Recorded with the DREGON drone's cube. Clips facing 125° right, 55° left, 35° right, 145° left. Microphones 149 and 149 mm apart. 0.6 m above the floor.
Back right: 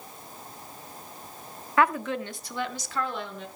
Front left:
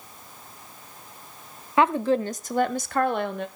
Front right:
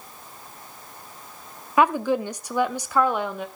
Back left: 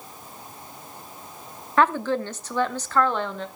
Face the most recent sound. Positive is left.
turn(degrees=45)